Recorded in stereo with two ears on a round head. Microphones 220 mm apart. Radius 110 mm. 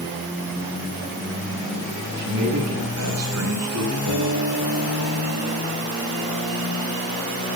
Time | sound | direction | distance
2.2 | a man speaking | 65° right (ahead or behind) | 10 m
4.1 | a guitar | 85° right | 9.5 m